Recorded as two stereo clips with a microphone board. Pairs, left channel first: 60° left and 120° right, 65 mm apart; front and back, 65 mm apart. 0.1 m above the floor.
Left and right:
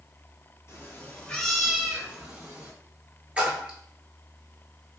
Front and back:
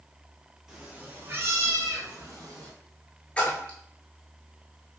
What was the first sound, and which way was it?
A cat meowing, 100° left.